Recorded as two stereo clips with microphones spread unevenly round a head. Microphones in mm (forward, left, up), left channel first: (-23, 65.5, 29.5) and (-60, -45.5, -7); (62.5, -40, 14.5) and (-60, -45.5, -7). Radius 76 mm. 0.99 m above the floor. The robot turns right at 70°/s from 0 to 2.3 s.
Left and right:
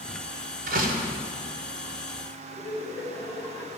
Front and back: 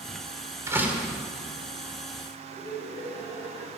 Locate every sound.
0.7 s a door slam: 110° right, 1.8 m; by 1.2 s 75° right, 1.8 m
2.5 s laughter: 40° left, 4.5 m